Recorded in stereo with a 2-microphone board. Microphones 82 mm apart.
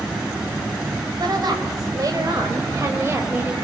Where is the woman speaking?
55° right (ahead or behind), 5.5 m; by 3.5 s 25° right (ahead or behind), 5 m.